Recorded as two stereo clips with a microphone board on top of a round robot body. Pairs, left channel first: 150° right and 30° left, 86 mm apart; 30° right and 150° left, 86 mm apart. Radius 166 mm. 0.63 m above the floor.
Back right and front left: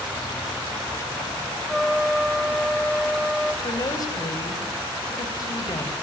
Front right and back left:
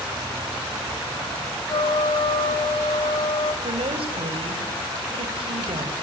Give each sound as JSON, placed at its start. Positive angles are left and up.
{"t": 1.7, "sound": "a trumpet", "azimuth_deg": -60, "distance_m": 3.5}
{"t": 3.6, "sound": "a woman speaking", "azimuth_deg": 165, "distance_m": 4.5}